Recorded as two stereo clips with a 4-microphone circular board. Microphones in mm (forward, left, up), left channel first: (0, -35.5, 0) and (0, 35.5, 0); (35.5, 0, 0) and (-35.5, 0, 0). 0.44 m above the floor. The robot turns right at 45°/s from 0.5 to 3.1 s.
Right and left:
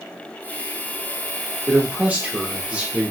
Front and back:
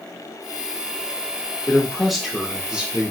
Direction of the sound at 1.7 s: 75° left.